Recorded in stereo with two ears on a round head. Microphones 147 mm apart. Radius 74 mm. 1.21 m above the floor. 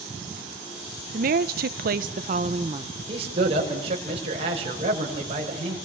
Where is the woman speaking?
55° right (ahead or behind), 1.1 m; by 3.0 s 25° right (ahead or behind), 1.2 m.